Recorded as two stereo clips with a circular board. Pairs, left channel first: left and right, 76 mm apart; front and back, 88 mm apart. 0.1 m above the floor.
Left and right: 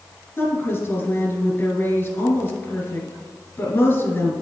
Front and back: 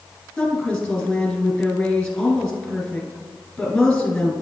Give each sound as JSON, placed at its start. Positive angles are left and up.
{"t": 0.4, "sound": "a woman speaking", "azimuth_deg": 70, "distance_m": 1.6}